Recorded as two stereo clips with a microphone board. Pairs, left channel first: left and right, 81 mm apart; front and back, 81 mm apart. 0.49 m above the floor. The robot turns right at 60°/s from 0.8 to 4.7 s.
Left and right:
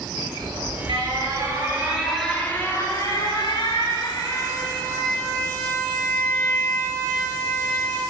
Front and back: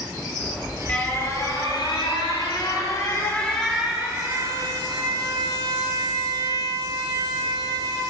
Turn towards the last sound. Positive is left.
turn(degrees=155)